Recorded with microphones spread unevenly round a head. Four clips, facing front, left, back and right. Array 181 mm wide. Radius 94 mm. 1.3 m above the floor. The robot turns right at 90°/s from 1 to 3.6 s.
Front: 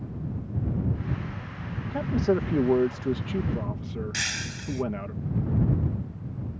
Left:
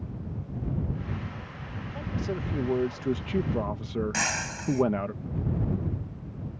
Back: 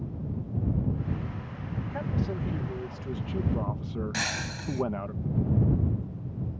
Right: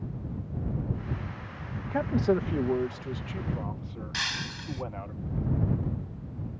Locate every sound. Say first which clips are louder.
1.9 s a man speaking: right 8 dB, front 9 dB; 75° right; by 5.1 s 85° left
4.1 s breaking glass: left 5 dB, back 2 dB; 120° left